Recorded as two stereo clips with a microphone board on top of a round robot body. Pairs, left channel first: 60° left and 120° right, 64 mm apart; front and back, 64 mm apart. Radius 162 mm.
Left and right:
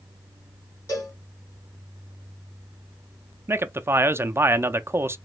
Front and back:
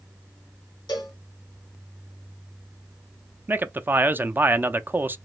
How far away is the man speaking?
About 0.6 m.